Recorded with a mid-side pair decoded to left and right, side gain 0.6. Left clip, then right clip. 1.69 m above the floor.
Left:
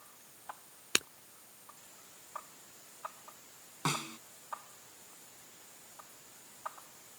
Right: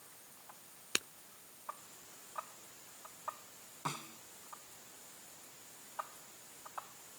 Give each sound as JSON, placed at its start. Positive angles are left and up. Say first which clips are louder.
{"t": 0.9, "sound": "breaking glass", "louder": "left 5 dB", "azimuth_deg": 30}
{"t": 3.9, "sound": "a snare drum", "louder": "left 7 dB", "azimuth_deg": 45}